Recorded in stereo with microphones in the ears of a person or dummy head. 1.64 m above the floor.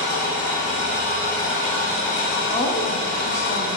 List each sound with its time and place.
0.0 s an engine running: 50° left (ahead or behind), 1.4 m
2.5 s a woman speaking: 30° left (ahead or behind), 0.7 m